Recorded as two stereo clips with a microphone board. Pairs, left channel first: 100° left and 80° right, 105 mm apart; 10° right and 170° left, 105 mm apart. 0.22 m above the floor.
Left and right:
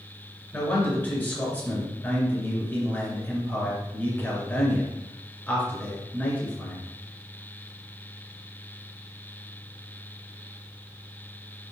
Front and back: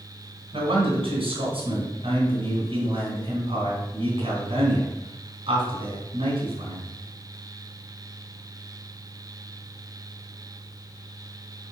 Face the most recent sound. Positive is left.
turn(degrees=170)